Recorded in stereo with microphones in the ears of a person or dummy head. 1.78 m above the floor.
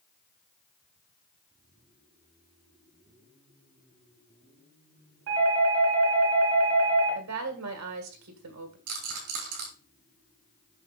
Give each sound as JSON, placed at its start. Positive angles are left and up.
{"t": 5.3, "sound": "a doorbell", "side_deg": -85, "distance_m": 2.5}
{"t": 7.2, "sound": "a woman speaking", "side_deg": -80, "distance_m": 1.8}
{"t": 8.9, "sound": "a rattle", "side_deg": -80, "distance_m": 3.5}